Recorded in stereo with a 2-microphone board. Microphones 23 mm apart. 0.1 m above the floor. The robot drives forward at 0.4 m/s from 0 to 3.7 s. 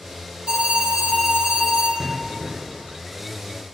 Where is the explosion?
20° right (ahead or behind), 0.7 m; by 3.0 s 25° right (ahead or behind), 0.6 m.